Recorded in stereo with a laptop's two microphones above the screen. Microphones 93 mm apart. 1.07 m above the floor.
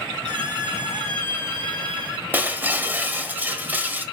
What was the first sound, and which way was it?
A squeak, 50° right (ahead or behind).